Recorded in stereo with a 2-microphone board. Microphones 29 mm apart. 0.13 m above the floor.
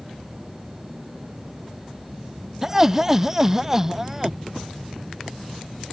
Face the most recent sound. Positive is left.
turn(degrees=-15)  # may be behind; listen again after turning